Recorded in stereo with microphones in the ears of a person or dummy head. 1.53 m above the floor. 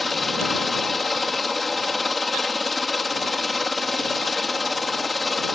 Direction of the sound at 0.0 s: Centre (ahead or behind).